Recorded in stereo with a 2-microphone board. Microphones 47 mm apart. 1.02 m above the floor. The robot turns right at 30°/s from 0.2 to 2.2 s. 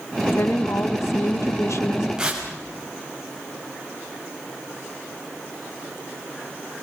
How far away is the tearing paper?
About 6 m.